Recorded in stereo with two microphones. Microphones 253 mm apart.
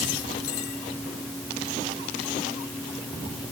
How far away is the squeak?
I don't hear a squeak.